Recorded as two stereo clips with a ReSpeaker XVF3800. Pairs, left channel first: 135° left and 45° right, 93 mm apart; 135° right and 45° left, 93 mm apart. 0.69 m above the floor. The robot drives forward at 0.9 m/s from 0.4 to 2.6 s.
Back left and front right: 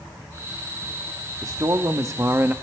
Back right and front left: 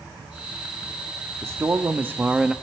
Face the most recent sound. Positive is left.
turn(degrees=-35)